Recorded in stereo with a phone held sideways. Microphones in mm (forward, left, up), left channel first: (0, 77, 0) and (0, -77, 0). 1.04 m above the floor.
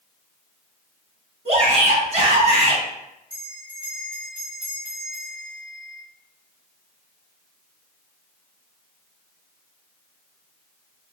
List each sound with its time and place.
1.4 s a shout: 50° right (ahead or behind), 0.9 m
3.3 s a bell: 30° left (ahead or behind), 1.7 m